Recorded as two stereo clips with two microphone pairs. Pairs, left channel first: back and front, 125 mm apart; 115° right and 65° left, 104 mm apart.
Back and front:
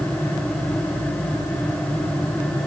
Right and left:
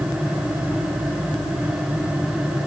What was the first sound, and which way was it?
Only background noise.